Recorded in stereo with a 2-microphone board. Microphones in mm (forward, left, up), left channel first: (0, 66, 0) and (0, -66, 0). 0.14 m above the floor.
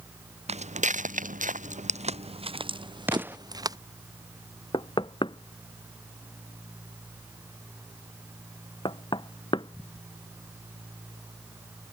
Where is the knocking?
35° left (ahead or behind).